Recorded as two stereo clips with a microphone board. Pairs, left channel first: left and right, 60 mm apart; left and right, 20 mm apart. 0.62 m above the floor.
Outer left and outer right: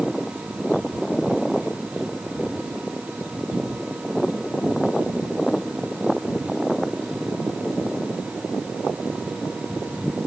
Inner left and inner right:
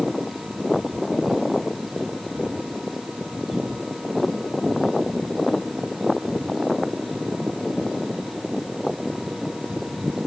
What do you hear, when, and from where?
Only background noise.